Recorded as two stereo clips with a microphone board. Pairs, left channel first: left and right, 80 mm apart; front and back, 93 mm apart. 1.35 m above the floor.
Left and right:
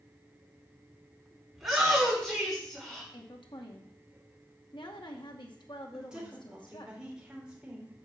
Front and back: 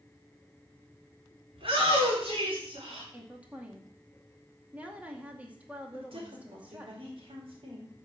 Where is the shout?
175° right, 4.5 m; by 3.0 s 175° left, 4.5 m.